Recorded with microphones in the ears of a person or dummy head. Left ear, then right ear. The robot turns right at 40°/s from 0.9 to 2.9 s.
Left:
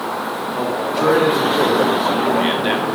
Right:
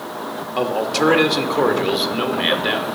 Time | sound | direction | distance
0.6 | a man speaking | 80° right | 2 m